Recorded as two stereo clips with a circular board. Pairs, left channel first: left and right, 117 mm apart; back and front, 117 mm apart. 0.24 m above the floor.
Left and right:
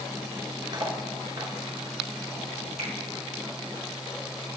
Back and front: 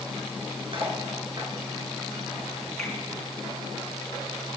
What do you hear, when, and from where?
0.7 s cutlery clinking: 40° right, 2 m
2.8 s a finger snap: 95° right, 3 m